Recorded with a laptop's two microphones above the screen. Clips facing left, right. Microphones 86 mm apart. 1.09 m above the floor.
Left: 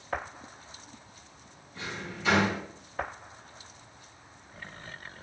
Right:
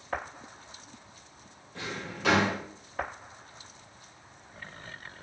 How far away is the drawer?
About 1.4 m.